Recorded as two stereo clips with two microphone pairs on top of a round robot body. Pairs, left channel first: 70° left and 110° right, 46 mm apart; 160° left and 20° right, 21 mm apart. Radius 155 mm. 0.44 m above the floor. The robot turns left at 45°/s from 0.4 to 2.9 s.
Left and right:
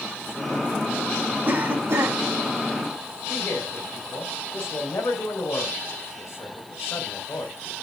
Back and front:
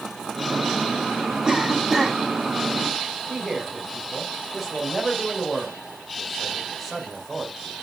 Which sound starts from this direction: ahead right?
A cough, at 1.4 s.